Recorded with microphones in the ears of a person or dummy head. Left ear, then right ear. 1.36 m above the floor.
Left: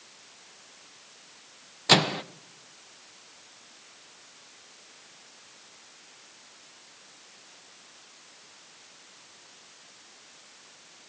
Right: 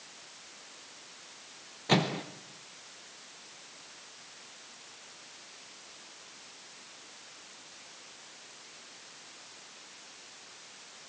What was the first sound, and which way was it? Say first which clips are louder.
A microwave: left 7 dB; 50° left (ahead or behind).